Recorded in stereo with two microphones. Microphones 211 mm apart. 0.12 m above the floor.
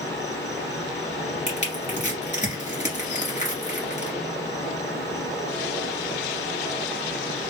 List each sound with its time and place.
0.0 s an insect: 15° left (ahead or behind), 1.4 m
1.5 s crushing: 35° left (ahead or behind), 2.5 m